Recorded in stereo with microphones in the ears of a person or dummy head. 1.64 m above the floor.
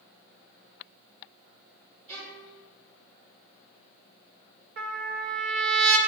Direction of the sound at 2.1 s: 40° right (ahead or behind).